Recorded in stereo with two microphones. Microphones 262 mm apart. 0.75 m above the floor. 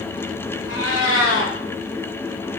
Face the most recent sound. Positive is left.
turn(degrees=65)  # may be behind; listen again after turning